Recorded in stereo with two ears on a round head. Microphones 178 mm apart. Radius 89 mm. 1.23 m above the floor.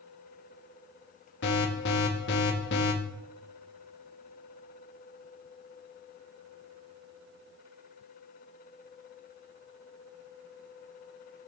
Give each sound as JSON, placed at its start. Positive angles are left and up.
{"t": 1.4, "sound": "an alarm", "side_deg": 60, "distance_m": 2.0}